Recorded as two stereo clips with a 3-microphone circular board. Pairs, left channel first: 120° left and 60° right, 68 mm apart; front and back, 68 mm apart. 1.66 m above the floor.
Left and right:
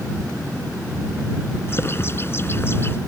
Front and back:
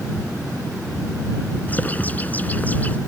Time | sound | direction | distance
1.7 | a bird | 65° left | ?